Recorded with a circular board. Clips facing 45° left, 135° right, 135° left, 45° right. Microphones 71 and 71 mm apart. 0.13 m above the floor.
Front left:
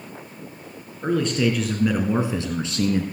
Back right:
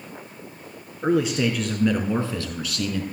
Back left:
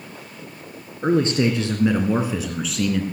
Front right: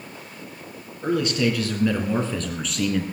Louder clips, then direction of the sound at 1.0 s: Even, back left 3 dB; 155° left.